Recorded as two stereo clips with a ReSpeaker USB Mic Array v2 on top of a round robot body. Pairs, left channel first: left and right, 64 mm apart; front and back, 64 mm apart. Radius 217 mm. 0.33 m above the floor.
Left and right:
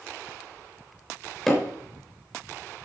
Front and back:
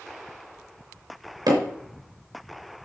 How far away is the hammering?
About 3.5 m.